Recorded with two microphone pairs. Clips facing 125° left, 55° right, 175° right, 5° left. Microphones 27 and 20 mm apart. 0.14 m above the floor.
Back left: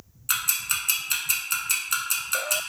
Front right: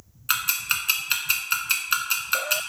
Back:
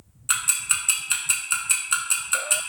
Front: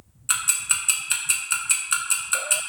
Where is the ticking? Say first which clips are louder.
Front right 3 dB, even; 95° right, 0.5 m.